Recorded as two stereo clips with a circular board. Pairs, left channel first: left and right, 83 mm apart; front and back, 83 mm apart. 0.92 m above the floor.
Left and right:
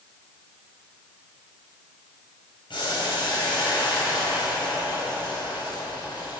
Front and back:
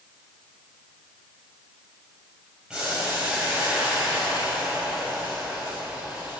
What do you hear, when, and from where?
2.7 s boiling: 100° left, 5 m